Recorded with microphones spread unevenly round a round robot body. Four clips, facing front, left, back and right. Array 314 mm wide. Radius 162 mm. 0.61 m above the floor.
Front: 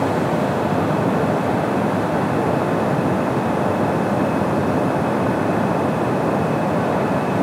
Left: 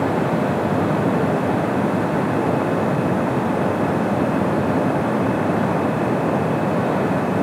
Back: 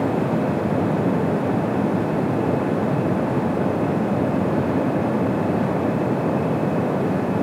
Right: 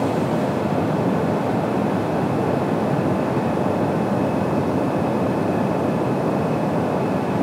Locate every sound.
Only background noise.